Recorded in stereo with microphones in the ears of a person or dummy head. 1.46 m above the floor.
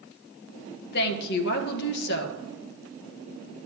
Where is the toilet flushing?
No toilet flushing in this recording.